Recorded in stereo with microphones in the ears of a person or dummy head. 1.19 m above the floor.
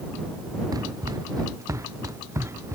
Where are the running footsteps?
20° right (ahead or behind); by 2.8 s 10° right (ahead or behind).